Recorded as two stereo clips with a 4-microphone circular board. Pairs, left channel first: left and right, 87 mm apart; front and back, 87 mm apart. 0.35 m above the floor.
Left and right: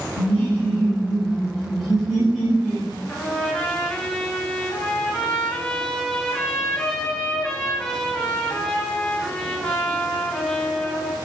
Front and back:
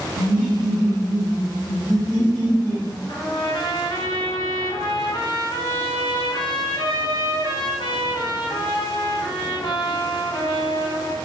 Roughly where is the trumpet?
Ahead.